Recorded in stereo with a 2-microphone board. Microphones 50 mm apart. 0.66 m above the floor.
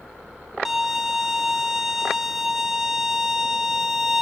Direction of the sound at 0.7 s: 10° right (ahead or behind).